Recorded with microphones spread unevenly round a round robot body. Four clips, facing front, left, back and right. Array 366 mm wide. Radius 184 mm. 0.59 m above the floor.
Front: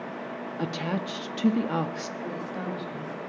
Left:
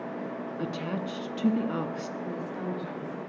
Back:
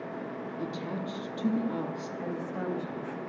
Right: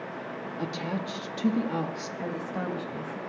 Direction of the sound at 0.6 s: 15° right.